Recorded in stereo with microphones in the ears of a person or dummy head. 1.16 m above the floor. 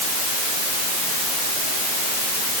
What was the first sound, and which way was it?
Only background noise.